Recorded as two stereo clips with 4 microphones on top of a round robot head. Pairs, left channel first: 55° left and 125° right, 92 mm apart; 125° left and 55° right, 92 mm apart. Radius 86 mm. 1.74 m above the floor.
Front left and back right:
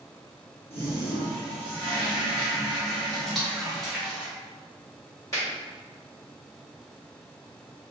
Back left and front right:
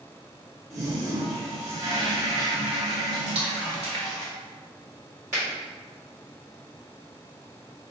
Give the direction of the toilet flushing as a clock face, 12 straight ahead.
11 o'clock.